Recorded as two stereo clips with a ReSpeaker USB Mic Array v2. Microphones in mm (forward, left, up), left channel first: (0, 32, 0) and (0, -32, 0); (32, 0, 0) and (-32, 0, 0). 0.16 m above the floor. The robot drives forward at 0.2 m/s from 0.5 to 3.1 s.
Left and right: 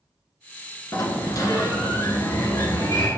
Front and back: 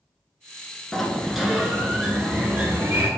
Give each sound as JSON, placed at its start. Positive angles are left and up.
{"t": 0.9, "sound": "a sliding door", "azimuth_deg": 85, "distance_m": 0.7}